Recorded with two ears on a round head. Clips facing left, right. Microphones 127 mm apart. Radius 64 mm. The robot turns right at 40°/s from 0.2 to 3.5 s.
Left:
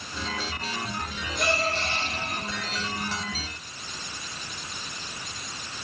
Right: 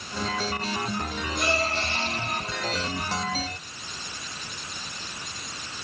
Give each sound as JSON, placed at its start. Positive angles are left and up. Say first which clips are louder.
{"t": 1.4, "sound": "a gasp", "louder": "left 1 dB", "side_deg": 80, "distance_m": 10.0}